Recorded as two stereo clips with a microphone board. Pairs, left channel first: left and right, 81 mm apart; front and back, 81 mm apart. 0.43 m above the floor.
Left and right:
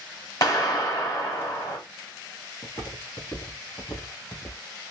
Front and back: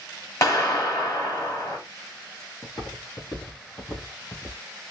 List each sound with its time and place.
0.4 s a clap: 50° left, 2.5 m
2.6 s footsteps: 40° left, 3.5 m; by 4.6 s 55° left, 3 m